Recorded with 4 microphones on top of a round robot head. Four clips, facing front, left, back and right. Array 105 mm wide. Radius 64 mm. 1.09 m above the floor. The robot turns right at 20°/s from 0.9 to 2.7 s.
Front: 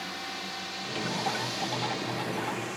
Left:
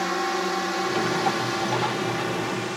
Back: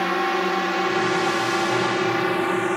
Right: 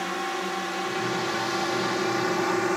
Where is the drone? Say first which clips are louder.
Left 4 dB, back 17 dB; 165° left; by 2.8 s 150° right.